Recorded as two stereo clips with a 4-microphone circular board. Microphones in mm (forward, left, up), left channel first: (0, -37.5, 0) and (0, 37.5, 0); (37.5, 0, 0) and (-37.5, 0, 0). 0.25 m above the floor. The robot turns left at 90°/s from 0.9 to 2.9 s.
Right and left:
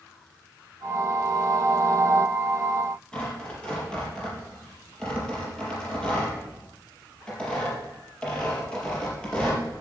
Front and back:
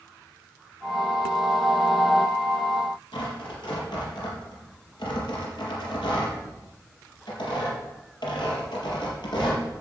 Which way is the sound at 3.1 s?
10° right.